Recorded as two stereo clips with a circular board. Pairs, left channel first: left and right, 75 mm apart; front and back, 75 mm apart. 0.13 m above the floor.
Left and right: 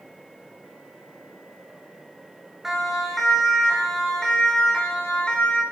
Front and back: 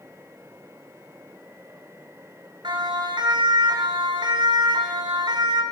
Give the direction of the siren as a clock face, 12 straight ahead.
6 o'clock.